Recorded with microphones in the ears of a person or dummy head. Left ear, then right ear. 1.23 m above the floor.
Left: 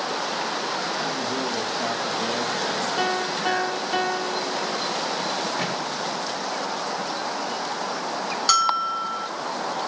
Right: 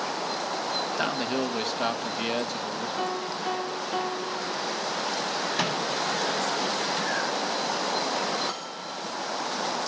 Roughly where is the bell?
Left.